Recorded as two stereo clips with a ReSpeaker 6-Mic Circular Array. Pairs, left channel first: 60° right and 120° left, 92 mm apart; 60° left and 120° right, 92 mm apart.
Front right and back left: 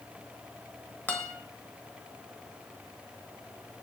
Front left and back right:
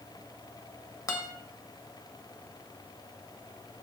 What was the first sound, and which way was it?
A guitar, 10° left.